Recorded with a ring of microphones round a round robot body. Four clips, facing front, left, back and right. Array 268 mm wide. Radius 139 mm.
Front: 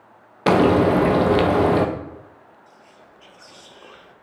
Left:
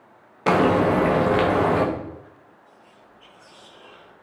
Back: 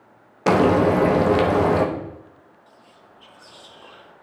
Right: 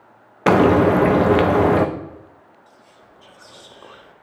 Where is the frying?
80° right, 0.8 m.